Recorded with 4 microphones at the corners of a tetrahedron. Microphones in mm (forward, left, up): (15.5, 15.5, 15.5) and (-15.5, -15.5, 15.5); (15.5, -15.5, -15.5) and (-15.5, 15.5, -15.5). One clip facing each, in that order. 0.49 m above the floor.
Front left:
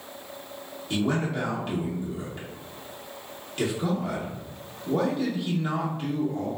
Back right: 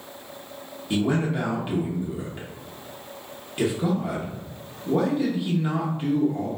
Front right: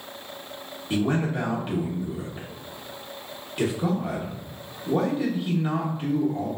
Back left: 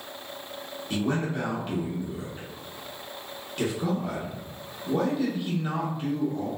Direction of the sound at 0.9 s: 90° right.